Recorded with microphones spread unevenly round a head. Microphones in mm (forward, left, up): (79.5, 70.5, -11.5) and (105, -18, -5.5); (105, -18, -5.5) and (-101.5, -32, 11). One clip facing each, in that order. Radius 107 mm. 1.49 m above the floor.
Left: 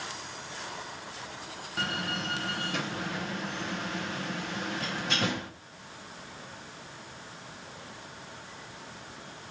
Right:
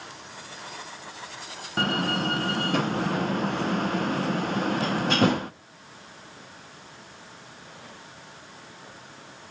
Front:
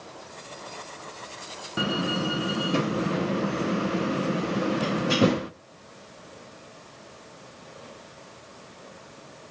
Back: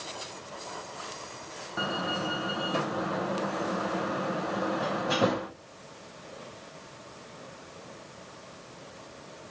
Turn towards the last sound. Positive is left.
turn(degrees=-50)